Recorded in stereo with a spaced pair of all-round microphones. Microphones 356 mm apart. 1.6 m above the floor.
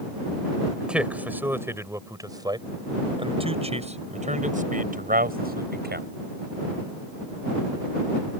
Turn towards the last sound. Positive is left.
turn(degrees=-30)  # may be behind; listen again after turning